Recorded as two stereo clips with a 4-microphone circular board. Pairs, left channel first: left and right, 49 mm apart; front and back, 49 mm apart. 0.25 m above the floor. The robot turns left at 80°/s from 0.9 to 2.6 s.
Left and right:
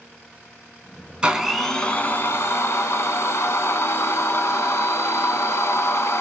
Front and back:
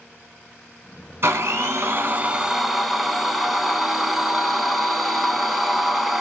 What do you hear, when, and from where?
1.2 s a blender: 155° right, 0.6 m; by 6.2 s 95° left, 0.6 m